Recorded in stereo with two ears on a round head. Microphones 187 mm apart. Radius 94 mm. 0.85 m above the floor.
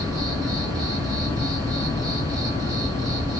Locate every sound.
0.0 s an insect: 20° right (ahead or behind), 1.1 m